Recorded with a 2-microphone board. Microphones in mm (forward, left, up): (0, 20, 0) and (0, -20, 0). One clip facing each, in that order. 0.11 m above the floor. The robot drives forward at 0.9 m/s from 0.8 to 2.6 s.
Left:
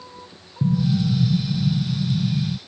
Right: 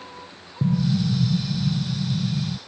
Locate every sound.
0.6 s an explosion: 20° right (ahead or behind); by 2.6 s 5° right (ahead or behind)